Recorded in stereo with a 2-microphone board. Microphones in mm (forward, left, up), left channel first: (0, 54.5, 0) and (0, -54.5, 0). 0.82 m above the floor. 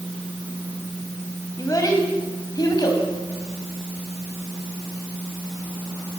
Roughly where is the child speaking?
Left.